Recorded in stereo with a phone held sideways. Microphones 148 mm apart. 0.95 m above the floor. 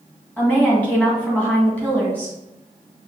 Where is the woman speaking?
10° left (ahead or behind), 1.8 m.